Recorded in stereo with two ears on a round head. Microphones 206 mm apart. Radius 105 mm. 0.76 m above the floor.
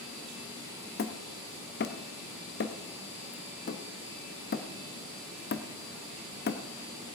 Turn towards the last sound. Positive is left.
turn(degrees=45)  # may be behind; listen again after turning